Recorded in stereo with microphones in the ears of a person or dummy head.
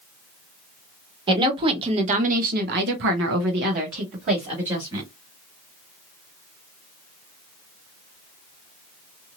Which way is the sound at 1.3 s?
25° right (ahead or behind).